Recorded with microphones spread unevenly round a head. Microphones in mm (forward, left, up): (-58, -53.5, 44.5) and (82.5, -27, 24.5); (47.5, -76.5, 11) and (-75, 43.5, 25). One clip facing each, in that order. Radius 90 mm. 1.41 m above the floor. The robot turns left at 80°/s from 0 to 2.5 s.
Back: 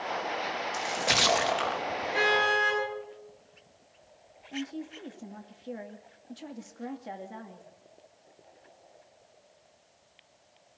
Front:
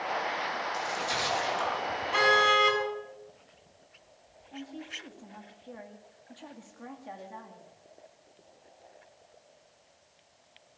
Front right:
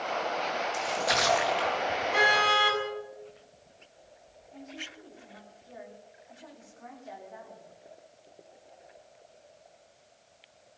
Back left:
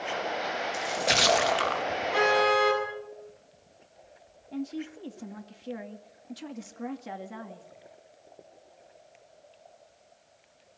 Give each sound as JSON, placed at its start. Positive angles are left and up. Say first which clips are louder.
{"t": 0.7, "sound": "a splash", "louder": "back 2 dB, back left 2 dB", "azimuth_deg": -140, "distance_m": 1.2}
{"t": 2.1, "sound": "a car horn", "louder": "front 2 dB, back left 6 dB", "azimuth_deg": 40, "distance_m": 7.5}
{"t": 4.5, "sound": "a woman speaking", "louder": "back 6 dB, back left 11 dB", "azimuth_deg": 130, "distance_m": 2.0}